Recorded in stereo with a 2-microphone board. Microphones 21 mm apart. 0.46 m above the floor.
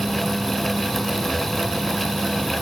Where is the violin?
No violin in this recording.